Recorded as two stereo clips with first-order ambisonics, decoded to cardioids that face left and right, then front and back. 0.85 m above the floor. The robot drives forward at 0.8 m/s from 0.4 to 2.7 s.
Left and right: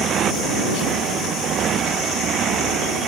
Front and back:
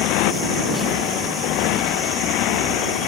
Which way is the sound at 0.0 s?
30° right.